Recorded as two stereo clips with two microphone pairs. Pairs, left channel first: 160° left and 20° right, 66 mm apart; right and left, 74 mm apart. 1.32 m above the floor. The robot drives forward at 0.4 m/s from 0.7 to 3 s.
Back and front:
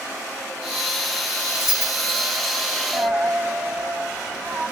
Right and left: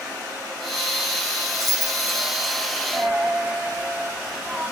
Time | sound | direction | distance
1.5 | keys jangling | 175° right | 2.5 m
2.9 | a dropped coin | 25° left | 0.7 m